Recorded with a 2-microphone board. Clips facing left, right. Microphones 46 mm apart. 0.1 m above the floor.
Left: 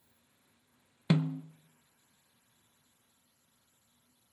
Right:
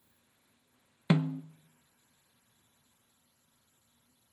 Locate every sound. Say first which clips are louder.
1.1 s a snare drum: right 1 dB; 15° right (ahead or behind), 0.6 m